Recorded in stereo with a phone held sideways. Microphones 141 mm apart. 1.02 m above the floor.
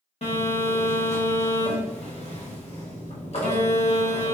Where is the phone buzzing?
50° left (ahead or behind), 1.0 m.